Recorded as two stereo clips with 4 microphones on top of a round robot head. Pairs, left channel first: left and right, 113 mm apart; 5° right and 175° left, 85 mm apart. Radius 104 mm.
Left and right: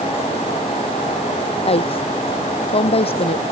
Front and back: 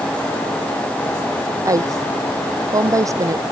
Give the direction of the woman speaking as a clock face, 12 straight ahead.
8 o'clock.